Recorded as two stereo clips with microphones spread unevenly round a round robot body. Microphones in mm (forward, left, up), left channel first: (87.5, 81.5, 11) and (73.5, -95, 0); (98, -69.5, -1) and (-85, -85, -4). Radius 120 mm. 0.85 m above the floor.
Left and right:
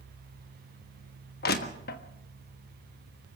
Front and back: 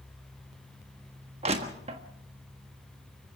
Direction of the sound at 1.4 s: 125° left.